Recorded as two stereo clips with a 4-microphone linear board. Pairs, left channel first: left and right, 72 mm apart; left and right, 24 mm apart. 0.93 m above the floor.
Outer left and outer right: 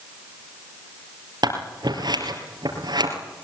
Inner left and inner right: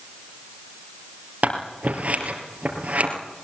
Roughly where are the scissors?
Right.